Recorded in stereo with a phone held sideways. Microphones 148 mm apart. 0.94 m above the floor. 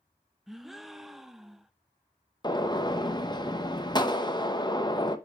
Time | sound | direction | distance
0.5 | a gasp | centre (ahead or behind) | 0.5 m
2.4 | a gunshot | 30° left (ahead or behind) | 0.8 m